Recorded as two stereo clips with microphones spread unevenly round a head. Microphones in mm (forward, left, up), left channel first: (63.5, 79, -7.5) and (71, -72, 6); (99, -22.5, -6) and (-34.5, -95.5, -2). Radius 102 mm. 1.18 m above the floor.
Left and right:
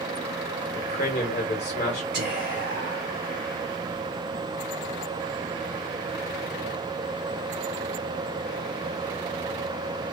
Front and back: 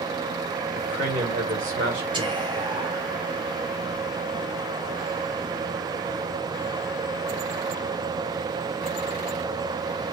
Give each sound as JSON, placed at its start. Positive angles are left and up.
{"t": 0.8, "sound": "a man speaking", "azimuth_deg": 155, "distance_m": 1.3}
{"t": 2.1, "sound": "whispering", "azimuth_deg": -95, "distance_m": 0.7}